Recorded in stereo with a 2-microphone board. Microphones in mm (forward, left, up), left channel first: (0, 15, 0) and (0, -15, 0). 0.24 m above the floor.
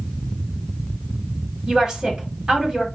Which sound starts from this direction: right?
A woman speaking, at 1.7 s.